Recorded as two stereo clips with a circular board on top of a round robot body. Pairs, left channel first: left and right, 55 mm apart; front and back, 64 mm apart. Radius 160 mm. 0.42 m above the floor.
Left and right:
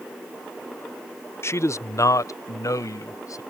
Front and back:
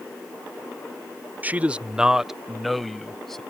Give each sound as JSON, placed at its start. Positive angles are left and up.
{"t": 1.4, "sound": "a man speaking", "azimuth_deg": 120}